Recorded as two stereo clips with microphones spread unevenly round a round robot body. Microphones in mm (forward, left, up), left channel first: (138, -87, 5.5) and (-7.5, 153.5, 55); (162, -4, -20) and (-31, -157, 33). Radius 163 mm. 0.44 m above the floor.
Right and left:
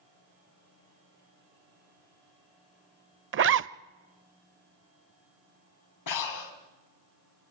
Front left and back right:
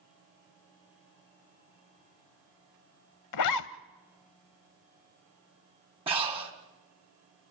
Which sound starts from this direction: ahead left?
A zipper, at 3.3 s.